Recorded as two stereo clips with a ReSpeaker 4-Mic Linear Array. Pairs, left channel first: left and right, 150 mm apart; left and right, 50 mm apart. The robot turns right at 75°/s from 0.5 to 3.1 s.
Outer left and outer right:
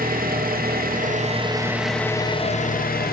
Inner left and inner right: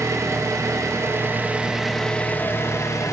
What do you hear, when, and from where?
0.0 s an engine running: 105° right, 0.8 m; by 3.1 s 90° left, 0.8 m